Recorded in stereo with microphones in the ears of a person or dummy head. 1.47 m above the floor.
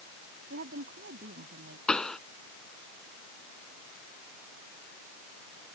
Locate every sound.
0.5 s a woman speaking: 55° right (ahead or behind)
1.9 s a pop: 5° left (ahead or behind)